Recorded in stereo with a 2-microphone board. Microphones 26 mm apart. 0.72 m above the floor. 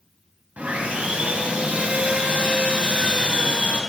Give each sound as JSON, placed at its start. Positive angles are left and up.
{"t": 0.6, "sound": "sawing", "side_deg": -65, "distance_m": 3.5}